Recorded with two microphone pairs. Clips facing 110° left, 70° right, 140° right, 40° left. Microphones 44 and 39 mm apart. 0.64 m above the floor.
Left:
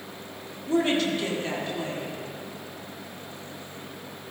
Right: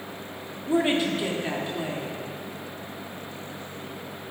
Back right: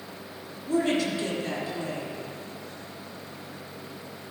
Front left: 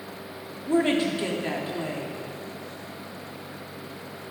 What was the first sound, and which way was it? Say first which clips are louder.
A woman speaking: right 1 dB, front left 2 dB; 5° right.